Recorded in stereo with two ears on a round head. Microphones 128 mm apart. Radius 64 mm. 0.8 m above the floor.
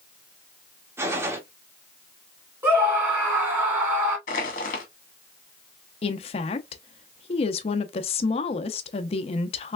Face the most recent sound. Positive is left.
turn(degrees=40)  # may be behind; listen again after turning